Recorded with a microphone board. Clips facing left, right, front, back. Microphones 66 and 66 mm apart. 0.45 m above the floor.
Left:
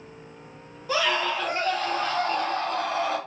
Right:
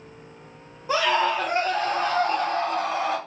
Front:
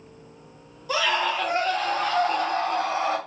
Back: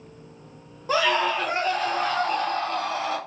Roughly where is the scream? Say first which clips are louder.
Right 3 dB, back 2 dB; behind right.